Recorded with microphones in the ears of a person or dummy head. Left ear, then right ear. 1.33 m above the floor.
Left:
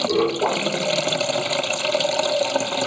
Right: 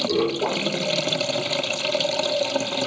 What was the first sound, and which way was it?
Running water, 25° left (ahead or behind).